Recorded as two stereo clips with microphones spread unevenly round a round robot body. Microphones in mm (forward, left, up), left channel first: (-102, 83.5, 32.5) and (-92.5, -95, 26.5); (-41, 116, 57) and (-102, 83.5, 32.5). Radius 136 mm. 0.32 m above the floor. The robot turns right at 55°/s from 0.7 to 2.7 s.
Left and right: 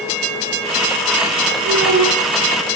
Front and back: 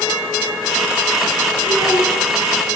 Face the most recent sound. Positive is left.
turn(degrees=-30)